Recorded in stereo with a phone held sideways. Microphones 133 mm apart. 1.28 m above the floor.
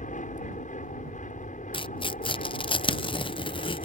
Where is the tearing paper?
40° left (ahead or behind).